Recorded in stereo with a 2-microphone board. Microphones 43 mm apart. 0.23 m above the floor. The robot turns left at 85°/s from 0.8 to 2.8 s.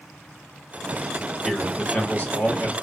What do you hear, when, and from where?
1.4 s a man speaking: 170° left, 1.6 m; by 2.7 s 60° left, 1.6 m